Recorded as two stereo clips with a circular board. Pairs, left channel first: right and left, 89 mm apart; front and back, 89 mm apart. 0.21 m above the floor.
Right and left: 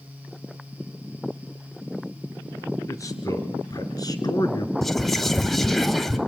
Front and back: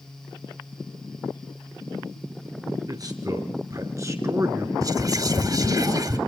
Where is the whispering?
175° right, 2.0 m.